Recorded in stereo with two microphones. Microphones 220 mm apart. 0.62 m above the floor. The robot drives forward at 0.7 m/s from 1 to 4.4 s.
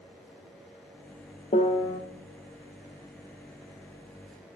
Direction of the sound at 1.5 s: 35° left (ahead or behind).